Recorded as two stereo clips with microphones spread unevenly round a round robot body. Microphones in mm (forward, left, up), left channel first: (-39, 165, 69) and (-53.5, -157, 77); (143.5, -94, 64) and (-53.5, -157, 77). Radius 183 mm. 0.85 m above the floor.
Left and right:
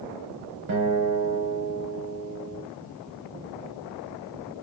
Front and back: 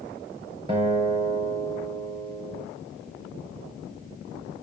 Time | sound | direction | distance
0.7 | a guitar | 105° right | 4.5 m